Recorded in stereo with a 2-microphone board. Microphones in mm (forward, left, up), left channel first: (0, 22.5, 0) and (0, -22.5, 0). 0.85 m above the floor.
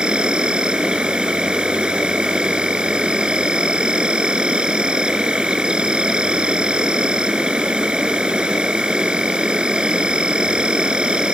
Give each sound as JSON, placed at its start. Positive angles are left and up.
{"t": 0.0, "sound": "an insect", "side_deg": -25}